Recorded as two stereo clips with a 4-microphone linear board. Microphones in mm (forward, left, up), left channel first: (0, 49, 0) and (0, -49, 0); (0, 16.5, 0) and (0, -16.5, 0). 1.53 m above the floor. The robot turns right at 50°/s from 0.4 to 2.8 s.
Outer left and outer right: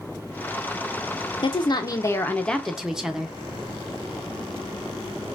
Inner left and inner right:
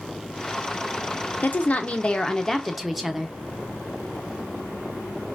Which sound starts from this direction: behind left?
A woman speaking, at 1.4 s.